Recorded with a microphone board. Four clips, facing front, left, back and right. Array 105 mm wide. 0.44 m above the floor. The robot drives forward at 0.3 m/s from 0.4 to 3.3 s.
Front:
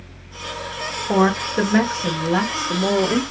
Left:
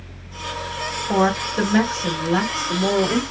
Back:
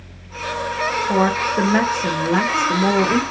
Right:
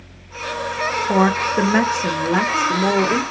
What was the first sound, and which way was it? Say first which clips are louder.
A woman speaking: right 2 dB, front 2 dB; 80° right.